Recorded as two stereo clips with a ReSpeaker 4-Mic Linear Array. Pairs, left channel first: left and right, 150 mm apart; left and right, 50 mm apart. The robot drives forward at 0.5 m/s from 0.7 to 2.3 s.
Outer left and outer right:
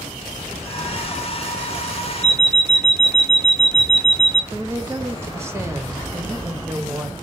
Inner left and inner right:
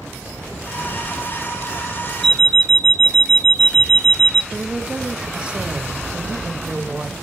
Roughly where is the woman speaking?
Centre.